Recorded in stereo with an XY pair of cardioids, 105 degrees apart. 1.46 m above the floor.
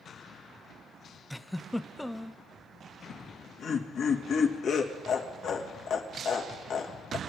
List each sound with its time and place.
1.3 s a giggle: 5° left, 0.5 m
3.1 s laughter: 65° left, 3 m